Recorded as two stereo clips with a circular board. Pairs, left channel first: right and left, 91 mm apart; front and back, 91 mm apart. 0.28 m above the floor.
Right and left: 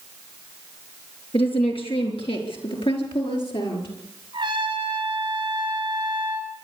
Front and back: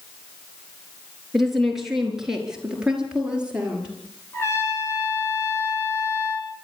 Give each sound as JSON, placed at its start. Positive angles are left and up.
{"t": 1.3, "sound": "a woman speaking", "azimuth_deg": -90, "distance_m": 5.0}
{"t": 4.3, "sound": "a trumpet", "azimuth_deg": 60, "distance_m": 4.5}